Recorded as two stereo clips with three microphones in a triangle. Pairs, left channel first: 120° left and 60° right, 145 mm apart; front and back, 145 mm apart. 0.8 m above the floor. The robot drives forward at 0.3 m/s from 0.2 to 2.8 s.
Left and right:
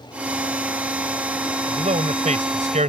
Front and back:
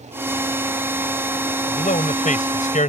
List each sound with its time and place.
1.7 s a man speaking: 25° right; by 2.9 s 30° right